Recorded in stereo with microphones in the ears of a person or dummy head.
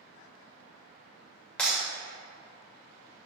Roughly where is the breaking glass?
Centre.